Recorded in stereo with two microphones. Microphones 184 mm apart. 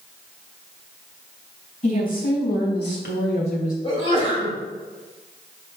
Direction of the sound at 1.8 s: 50° left (ahead or behind).